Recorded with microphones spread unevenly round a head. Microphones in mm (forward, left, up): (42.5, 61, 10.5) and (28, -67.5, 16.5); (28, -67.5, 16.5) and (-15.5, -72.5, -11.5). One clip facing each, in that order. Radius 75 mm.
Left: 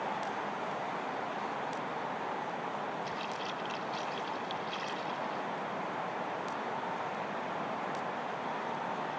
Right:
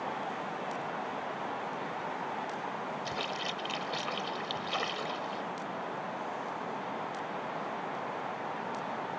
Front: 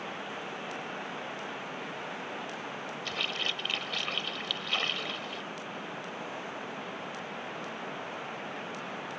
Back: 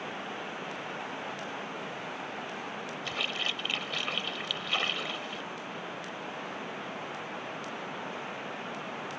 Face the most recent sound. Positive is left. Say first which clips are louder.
# right 1 dB, even
turn(degrees=-80)